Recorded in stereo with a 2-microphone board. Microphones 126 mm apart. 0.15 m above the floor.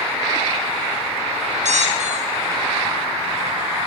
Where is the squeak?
75° right (ahead or behind), 4.5 m.